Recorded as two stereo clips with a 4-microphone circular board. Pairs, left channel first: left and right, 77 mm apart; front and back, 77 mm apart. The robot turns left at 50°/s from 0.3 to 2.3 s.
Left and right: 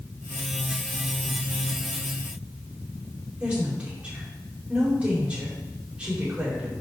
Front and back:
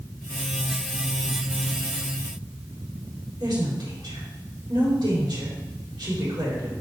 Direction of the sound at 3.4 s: 165° right.